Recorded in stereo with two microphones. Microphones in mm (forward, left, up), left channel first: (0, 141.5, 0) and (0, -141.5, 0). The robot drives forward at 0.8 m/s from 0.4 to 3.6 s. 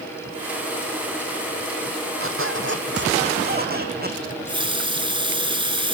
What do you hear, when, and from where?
2.2 s a squeak: 50° right (ahead or behind), 2.5 m; by 4.2 s 35° right (ahead or behind), 3 m
4.3 s a running tap: 15° right (ahead or behind), 2 m